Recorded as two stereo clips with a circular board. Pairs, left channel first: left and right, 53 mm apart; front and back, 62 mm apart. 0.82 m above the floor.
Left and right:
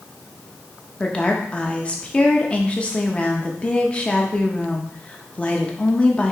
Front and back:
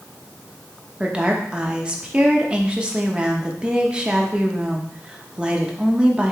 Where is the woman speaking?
130° left, 0.7 m.